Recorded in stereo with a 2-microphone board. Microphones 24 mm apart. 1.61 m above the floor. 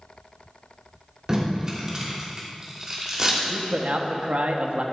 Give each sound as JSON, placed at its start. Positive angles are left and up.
{"t": 1.3, "sound": "tape being pulled", "side_deg": -30, "distance_m": 3.5}
{"t": 3.5, "sound": "a man speaking", "side_deg": -75, "distance_m": 1.2}